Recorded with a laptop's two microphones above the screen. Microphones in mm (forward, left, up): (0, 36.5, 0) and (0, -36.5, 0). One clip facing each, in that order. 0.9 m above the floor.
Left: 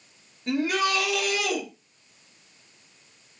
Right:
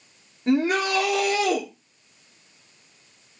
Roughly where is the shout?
Right.